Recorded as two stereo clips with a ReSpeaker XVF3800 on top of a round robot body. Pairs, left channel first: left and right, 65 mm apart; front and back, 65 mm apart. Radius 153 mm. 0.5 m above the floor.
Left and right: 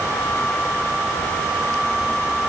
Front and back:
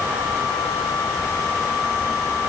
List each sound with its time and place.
Only background noise.